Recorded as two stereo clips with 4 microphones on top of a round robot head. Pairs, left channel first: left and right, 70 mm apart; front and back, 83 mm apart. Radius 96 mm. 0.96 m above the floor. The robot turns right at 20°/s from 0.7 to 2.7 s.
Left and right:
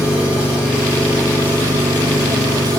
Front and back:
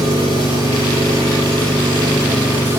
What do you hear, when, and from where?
0.0 s an engine running: 165° right, 4 m; by 2.8 s 125° right, 4 m